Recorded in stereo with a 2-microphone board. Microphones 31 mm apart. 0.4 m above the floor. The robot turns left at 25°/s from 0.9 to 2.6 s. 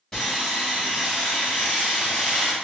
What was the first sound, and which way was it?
Sawing, 170° left.